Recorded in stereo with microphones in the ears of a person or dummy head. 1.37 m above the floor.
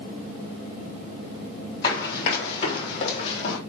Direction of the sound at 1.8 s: 30° left (ahead or behind).